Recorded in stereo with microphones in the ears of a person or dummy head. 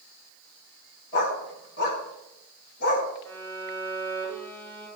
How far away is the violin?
About 7 m.